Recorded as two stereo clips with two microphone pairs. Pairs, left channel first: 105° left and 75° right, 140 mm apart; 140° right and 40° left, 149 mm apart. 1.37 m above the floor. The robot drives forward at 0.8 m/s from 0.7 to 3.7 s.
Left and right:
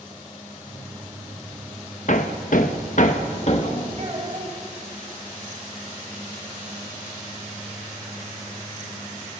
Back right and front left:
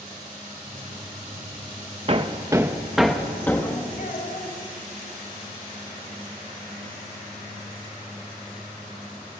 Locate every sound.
2.1 s hammering: 85° left, 0.9 m; by 3.9 s 145° left, 1.5 m
4.0 s a child speaking: 120° right, 5 m